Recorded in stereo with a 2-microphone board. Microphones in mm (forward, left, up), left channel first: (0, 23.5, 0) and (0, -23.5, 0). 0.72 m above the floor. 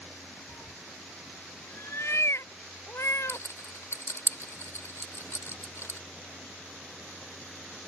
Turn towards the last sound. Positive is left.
turn(degrees=70)  # may be behind; listen again after turning